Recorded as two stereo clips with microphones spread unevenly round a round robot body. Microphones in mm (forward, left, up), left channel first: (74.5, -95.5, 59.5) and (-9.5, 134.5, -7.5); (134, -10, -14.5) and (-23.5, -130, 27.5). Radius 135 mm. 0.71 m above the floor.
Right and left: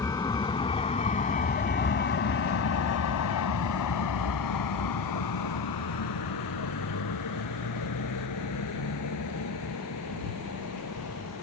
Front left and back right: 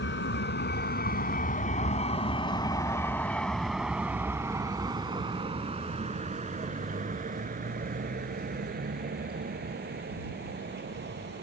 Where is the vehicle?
5° left; by 11.4 s 110° right.